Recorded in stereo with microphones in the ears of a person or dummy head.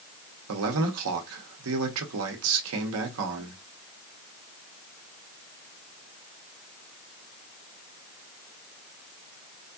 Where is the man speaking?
70° right (ahead or behind), 0.9 m.